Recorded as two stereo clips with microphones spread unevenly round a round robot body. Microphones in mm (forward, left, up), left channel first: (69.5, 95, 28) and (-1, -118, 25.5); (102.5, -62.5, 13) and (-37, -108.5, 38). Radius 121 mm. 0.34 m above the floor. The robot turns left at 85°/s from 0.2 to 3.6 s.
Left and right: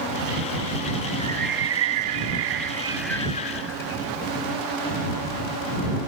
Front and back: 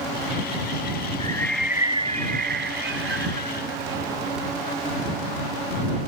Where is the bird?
40° right; by 4.1 s 115° left.